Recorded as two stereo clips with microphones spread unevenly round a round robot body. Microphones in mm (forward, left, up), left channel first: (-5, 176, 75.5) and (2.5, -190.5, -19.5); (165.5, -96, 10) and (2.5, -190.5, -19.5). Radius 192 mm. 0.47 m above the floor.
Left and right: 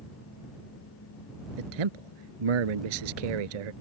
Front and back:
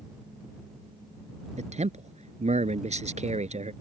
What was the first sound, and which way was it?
A man speaking, 95° right.